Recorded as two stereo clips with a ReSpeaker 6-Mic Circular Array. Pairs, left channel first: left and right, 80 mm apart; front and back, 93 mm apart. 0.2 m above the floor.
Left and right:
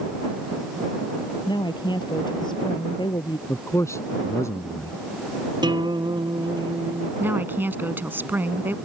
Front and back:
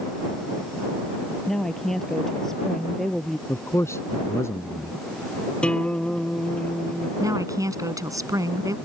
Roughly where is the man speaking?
Ahead left.